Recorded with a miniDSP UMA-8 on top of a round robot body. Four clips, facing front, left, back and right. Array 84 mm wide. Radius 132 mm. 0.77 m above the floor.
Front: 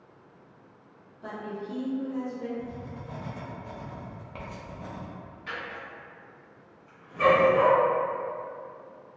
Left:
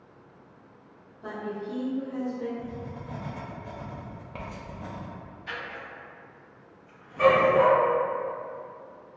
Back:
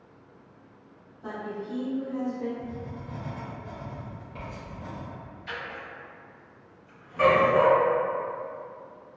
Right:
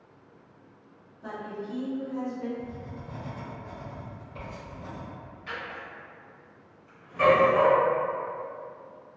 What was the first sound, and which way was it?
A woman speaking, 20° left.